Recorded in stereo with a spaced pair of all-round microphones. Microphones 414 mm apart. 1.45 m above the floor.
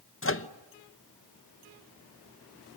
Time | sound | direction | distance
0.2 | a microwave | 30° left (ahead or behind) | 0.8 m